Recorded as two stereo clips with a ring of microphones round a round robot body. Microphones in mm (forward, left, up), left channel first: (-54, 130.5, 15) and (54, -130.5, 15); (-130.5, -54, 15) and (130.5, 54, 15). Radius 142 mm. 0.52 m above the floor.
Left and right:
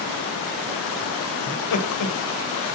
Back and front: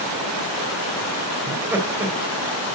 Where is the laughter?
105° left, 3 m.